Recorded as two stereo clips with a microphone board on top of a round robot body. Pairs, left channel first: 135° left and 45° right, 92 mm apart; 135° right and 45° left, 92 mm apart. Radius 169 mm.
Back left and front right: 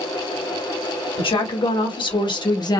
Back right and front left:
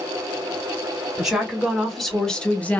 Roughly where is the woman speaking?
Behind left.